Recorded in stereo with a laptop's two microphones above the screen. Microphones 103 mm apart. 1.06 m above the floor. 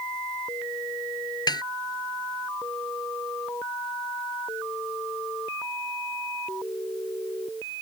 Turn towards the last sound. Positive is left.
turn(degrees=45)  # may be behind; listen again after turning